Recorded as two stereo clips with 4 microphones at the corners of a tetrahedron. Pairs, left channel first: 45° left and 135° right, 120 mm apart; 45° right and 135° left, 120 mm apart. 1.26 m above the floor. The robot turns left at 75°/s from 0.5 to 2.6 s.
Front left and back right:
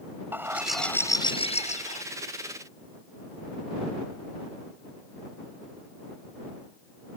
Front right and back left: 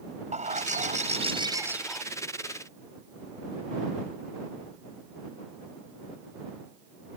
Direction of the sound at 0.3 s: 155° left.